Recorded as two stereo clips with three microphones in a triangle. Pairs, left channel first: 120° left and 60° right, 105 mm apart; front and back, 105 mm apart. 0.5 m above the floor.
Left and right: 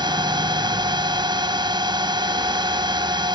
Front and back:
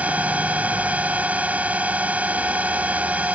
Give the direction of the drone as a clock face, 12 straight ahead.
3 o'clock.